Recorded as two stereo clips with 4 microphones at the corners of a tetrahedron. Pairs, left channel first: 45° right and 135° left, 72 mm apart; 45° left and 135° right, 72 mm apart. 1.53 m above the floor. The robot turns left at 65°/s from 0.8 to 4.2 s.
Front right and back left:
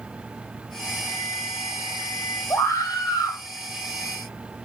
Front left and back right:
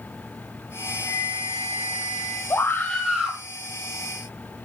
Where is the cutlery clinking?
No cutlery clinking in this recording.